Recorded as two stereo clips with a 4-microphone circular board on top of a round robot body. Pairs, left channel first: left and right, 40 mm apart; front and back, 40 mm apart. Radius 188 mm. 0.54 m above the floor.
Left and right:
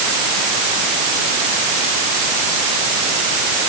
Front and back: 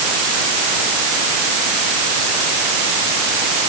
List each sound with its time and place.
Only background noise.